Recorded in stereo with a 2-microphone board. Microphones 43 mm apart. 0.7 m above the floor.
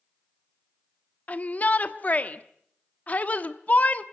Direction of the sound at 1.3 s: 35° left (ahead or behind).